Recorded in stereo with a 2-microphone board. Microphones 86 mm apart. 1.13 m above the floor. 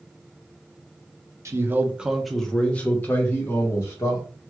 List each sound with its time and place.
1.4 s a man speaking: 35° right (ahead or behind), 0.6 m; by 4.2 s 35° left (ahead or behind), 1.4 m